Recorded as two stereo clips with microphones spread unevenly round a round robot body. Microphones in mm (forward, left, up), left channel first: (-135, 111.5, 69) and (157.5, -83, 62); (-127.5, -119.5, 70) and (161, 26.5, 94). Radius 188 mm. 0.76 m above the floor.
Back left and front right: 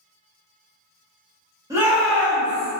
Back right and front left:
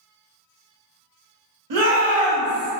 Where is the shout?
45° left, 1.2 m; by 2.7 s 75° left, 1.3 m.